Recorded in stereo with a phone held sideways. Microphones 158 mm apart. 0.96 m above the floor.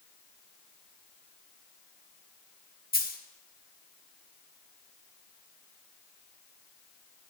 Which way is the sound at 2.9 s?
70° left (ahead or behind).